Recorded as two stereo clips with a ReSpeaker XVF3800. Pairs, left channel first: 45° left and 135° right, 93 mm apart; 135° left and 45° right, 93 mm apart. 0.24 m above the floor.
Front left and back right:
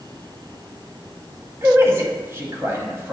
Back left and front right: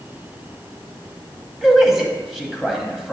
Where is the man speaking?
125° right, 1.0 m.